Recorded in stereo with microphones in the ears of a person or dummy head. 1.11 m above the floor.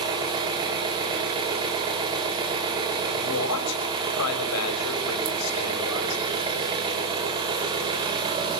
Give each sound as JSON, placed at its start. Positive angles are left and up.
{"t": 0.0, "sound": "an engine running", "side_deg": -25, "distance_m": 4.5}
{"t": 3.1, "sound": "a man speaking", "side_deg": 85, "distance_m": 6.0}